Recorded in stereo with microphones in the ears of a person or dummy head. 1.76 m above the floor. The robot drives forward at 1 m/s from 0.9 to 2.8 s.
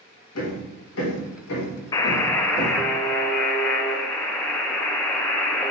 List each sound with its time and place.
0.3 s hammering: 75° left (ahead or behind), 3 m; by 2.8 s 65° left (ahead or behind), 3 m
1.9 s a buzzer: 25° left (ahead or behind), 0.8 m; by 5.7 s 10° left (ahead or behind), 1.6 m